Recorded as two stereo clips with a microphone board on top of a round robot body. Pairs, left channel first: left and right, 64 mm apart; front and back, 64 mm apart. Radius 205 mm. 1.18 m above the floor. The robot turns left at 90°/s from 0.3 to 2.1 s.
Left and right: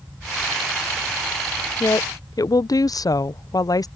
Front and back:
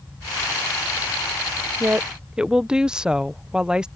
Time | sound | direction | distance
1.8 | a woman speaking | 130° left | ?